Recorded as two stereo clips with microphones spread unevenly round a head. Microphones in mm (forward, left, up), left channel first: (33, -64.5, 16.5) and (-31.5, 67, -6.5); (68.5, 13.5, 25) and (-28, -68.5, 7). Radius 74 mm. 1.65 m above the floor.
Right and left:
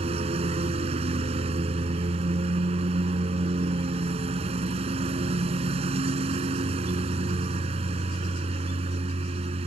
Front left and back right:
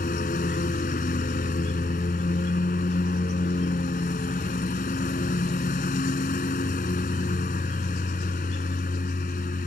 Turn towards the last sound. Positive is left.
turn(degrees=65)